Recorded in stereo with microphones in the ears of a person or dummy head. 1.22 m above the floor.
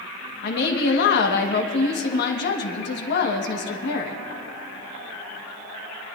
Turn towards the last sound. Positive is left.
turn(degrees=55)  # may be behind; listen again after turning